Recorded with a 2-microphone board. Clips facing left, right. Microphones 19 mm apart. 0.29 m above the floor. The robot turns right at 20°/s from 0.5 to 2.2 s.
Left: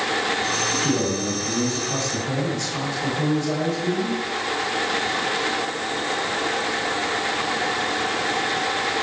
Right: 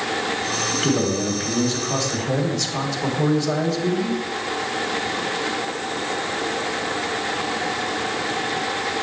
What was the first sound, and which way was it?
A man speaking, 115° right.